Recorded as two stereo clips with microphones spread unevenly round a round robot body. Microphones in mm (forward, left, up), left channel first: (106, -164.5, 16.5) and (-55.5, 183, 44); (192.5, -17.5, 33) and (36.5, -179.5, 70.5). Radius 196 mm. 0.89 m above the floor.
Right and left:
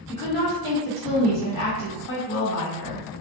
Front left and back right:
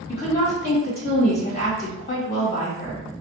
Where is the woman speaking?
10° left, 1.6 m.